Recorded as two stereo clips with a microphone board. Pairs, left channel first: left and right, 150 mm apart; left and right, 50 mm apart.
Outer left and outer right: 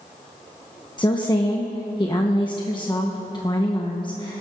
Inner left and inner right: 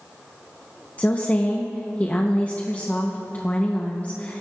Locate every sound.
1.0 s a woman speaking: 30° left (ahead or behind), 1.0 m